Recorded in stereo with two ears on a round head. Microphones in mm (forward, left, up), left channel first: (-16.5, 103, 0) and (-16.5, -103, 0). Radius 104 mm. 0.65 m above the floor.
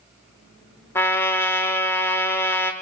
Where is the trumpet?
10° left (ahead or behind), 1.0 m.